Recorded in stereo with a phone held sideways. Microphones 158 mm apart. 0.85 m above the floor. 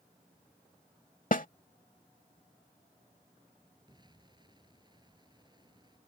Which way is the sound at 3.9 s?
30° right (ahead or behind).